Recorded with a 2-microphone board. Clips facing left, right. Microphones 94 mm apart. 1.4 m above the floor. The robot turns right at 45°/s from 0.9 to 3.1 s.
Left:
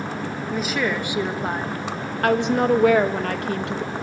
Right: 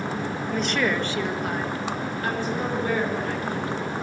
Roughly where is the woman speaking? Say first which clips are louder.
Even; ahead.